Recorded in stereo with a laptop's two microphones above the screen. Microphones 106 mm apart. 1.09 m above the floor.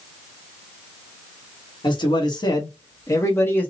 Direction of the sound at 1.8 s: 45° left (ahead or behind).